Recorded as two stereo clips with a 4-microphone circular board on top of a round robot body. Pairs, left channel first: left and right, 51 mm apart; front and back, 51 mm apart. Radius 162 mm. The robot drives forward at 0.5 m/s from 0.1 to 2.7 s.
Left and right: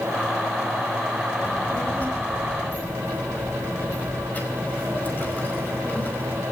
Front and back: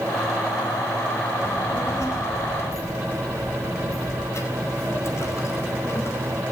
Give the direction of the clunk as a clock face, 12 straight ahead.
No clunk in this recording.